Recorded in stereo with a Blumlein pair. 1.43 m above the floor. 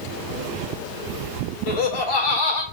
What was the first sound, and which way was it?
Laughter, 50° left.